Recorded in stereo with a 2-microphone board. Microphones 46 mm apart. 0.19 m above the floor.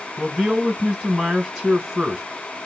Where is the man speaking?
Centre (ahead or behind), 1.0 m.